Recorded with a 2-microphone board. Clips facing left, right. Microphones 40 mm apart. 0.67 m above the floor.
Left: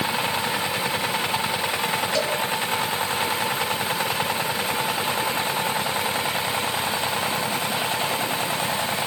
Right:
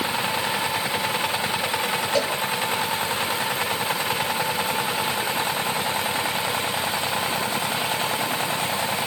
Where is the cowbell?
25° right (ahead or behind), 5.5 m.